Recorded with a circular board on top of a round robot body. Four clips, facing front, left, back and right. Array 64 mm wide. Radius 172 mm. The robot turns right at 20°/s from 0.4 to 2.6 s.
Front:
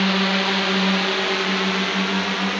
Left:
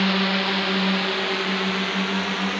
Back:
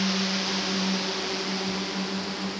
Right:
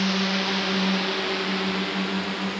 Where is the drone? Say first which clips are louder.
Left 3 dB, front 8 dB; 25° left.